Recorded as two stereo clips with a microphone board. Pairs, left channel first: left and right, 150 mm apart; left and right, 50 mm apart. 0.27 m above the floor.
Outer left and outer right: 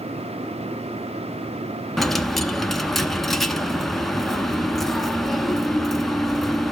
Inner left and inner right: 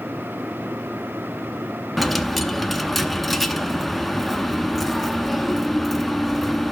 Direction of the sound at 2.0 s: Centre (ahead or behind).